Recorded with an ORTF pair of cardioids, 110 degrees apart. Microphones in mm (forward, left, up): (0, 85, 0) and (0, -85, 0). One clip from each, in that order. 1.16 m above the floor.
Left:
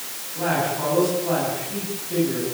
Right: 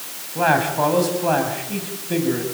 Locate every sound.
0.3 s a man speaking: 65° right, 8.5 m